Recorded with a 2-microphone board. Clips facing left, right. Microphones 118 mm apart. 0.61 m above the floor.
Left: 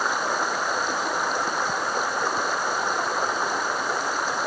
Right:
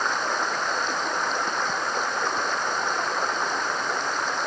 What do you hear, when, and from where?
0.0 s running water: 5° left (ahead or behind)